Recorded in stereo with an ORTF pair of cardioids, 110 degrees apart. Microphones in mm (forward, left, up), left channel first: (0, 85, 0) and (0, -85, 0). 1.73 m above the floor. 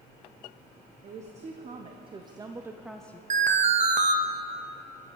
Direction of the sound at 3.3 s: 45° right.